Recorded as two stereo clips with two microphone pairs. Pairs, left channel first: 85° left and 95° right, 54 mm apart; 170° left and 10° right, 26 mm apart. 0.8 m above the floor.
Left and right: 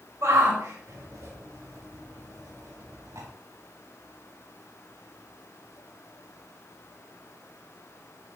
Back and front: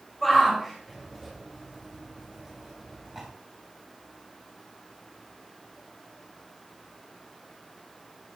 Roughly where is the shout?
Right.